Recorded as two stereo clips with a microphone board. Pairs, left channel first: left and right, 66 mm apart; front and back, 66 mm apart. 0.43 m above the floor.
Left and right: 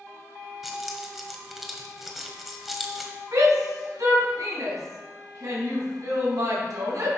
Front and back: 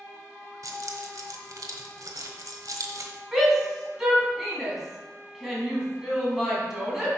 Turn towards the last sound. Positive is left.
turn(degrees=-95)